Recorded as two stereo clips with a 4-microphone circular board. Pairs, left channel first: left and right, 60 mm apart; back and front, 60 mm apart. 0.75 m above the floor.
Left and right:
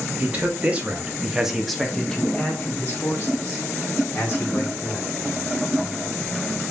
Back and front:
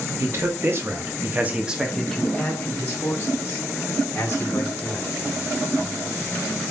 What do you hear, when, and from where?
0.2 s a man speaking: 30° right, 1.6 m; by 5.1 s 140° left, 3 m